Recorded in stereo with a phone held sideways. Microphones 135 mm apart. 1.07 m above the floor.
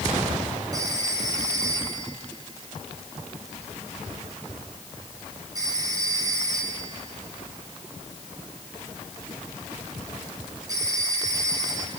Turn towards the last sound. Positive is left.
turn(degrees=-25)  # may be behind; listen again after turning